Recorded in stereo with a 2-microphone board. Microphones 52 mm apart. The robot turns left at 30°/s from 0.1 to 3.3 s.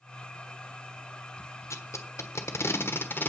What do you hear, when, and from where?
1.7 s tape being pulled: 70° left (ahead or behind), 1.2 m; by 3.3 s 40° left (ahead or behind), 1.2 m